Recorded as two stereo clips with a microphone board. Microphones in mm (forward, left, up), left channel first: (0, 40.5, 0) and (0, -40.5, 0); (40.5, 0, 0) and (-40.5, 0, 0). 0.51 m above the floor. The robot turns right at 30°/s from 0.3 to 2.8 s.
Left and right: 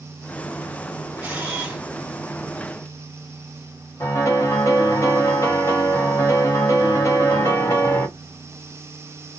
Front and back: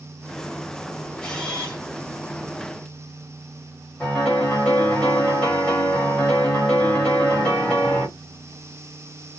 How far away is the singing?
I don't hear singing.